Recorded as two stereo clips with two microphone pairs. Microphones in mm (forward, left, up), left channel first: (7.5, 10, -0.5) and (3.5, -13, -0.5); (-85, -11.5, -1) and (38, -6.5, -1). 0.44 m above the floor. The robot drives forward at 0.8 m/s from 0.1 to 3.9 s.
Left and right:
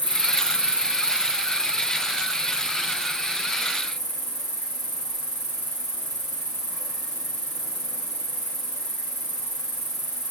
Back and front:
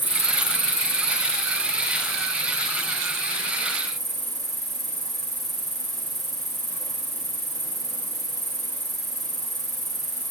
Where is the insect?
105° right, 0.9 m; by 10.3 s 165° right, 3.5 m.